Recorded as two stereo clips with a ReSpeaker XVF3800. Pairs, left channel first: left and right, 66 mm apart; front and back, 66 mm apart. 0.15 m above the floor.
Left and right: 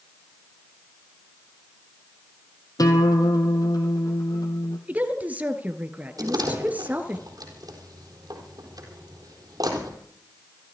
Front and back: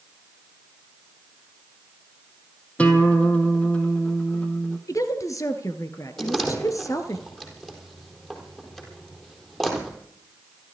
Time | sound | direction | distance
2.8 | a guitar | 70° left | 2.5 m
4.9 | a woman speaking | 25° right | 2 m
6.2 | a door slam | 85° right | 4 m